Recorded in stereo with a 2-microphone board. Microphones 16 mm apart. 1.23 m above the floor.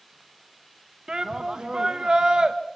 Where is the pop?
No pop in this recording.